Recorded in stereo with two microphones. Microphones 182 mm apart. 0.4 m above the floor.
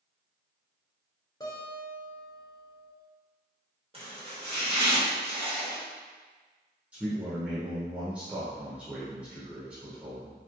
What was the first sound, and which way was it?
A guitar, 20° left (ahead or behind).